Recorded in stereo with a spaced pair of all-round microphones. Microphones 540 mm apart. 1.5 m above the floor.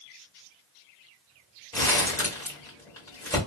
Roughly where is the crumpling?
Centre.